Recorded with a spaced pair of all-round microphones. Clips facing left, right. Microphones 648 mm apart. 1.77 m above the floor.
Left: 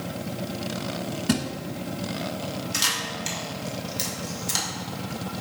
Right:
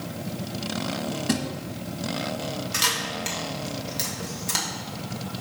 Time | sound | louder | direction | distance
1.3 | a thud | left 2 dB | 20° left (ahead or behind) | 1.1 m
2.7 | a camera shutter | right 1 dB | 75° right (ahead or behind) | 2 m